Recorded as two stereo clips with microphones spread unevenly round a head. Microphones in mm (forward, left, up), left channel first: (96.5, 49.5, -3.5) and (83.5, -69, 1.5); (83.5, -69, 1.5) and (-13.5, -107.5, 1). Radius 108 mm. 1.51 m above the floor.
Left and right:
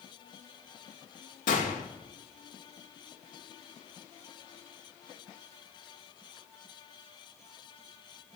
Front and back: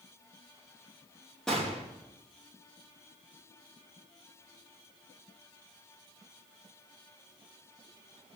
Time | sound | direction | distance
1.5 | a gunshot | 110° left | 2.5 m